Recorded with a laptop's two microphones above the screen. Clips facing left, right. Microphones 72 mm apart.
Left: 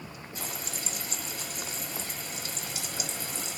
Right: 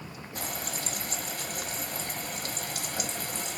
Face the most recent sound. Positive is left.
turn(degrees=-50)  # may be behind; listen again after turning